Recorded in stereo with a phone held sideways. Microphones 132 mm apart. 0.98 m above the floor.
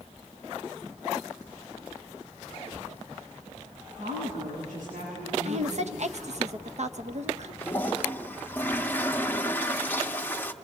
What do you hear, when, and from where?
4.0 s a woman speaking: 85° right, 9 m
5.5 s a woman speaking: 55° right (ahead or behind), 1.0 m
7.6 s a toilet flushing: 15° left (ahead or behind), 0.9 m